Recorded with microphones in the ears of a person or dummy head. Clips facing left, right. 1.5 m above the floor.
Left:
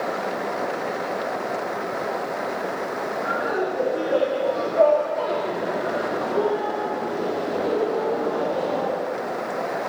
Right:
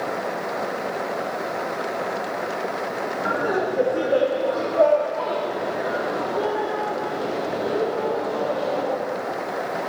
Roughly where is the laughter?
Right.